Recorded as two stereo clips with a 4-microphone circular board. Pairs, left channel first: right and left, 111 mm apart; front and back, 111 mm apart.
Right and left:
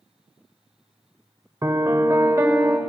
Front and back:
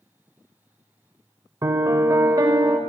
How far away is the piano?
About 0.9 m.